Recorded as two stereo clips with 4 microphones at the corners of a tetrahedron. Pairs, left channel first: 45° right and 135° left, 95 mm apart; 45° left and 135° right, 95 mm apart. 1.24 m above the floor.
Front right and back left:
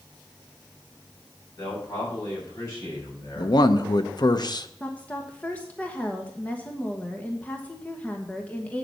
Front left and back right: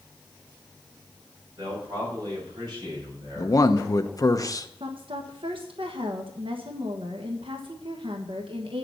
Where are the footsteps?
No footsteps in this recording.